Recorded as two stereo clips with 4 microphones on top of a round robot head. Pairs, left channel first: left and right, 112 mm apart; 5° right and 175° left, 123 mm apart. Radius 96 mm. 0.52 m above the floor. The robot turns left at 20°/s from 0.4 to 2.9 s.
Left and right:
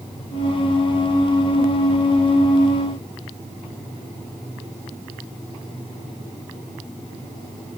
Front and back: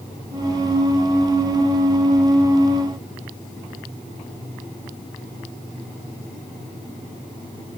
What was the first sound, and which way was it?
Only background noise.